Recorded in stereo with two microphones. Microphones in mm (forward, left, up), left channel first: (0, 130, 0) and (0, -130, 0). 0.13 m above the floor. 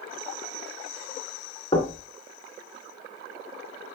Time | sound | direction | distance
1.7 | knocking | 20° left (ahead or behind) | 1.3 m